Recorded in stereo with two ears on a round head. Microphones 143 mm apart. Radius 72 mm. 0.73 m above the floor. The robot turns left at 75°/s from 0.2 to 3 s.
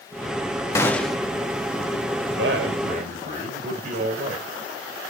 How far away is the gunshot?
About 1.1 m.